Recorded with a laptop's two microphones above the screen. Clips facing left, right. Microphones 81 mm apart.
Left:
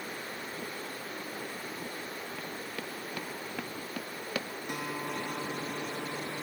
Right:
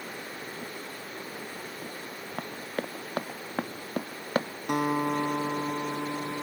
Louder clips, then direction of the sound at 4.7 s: Right 11 dB; 55° right (ahead or behind).